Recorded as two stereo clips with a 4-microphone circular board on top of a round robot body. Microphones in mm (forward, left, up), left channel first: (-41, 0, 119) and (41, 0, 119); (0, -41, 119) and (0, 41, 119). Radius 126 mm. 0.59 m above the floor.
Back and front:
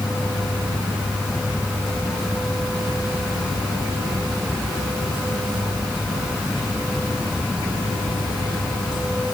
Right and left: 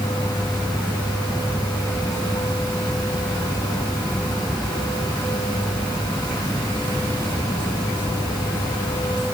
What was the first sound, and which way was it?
Only background noise.